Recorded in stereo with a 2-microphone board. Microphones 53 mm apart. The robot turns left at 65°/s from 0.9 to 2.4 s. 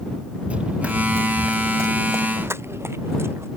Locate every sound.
0.5 s running footsteps: 25° right (ahead or behind); by 3.5 s 55° right (ahead or behind)